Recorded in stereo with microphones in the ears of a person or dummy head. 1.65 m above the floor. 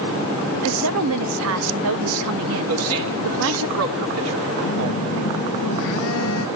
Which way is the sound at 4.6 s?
70° left (ahead or behind).